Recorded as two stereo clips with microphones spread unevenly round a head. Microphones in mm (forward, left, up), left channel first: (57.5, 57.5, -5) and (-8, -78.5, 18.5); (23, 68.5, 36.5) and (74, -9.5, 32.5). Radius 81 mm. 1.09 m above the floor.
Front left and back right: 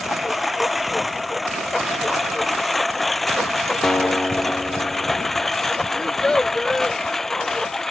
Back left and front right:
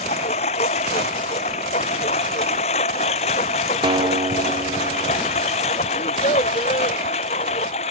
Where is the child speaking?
155° left.